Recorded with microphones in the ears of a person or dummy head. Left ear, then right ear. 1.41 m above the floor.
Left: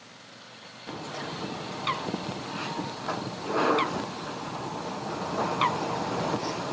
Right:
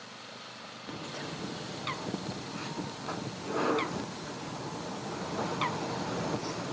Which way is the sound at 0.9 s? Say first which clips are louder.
Left 5 dB; 25° left (ahead or behind).